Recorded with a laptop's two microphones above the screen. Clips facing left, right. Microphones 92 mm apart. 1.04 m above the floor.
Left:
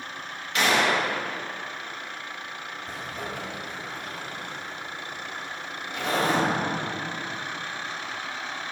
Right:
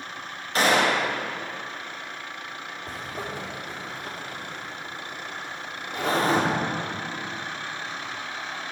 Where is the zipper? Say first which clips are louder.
Right 1 dB; 35° right (ahead or behind), 3 m.